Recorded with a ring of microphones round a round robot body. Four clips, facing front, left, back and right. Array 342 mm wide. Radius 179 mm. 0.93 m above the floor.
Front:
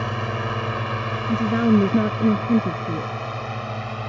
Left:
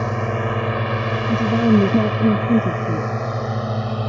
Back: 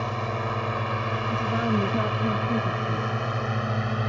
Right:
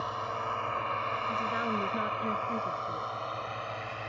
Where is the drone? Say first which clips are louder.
Left 11 dB, front 2 dB; 75° left; by 4.1 s 110° left.